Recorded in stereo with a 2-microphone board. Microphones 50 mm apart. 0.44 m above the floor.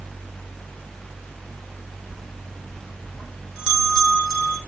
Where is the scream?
No scream in this recording.